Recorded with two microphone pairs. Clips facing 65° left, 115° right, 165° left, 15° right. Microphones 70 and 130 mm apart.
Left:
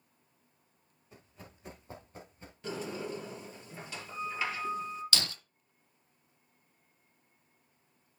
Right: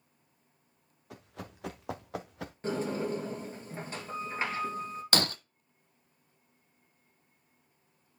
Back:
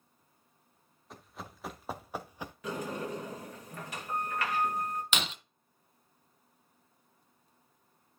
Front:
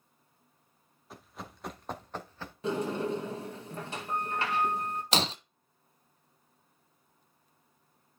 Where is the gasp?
I don't hear a gasp.